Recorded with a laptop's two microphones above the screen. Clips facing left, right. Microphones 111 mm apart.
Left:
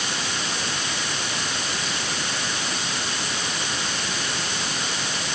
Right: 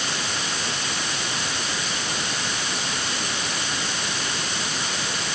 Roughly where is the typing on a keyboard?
No typing on a keyboard in this recording.